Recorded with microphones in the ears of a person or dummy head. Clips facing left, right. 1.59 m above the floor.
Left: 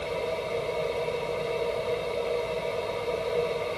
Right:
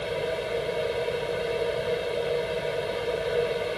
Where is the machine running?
15° right (ahead or behind).